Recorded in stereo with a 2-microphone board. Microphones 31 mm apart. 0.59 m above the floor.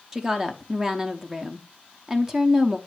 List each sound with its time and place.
0.1 s a woman speaking: 15° right (ahead or behind), 0.6 m